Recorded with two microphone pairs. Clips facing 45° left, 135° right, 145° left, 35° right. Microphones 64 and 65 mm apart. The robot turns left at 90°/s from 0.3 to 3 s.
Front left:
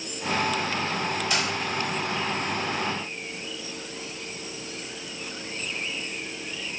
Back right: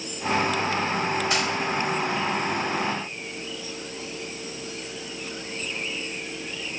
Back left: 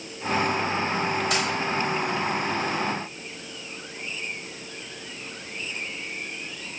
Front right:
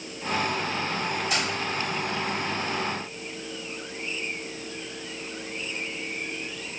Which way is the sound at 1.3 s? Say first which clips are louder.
Even, back left 2 dB; 170° left.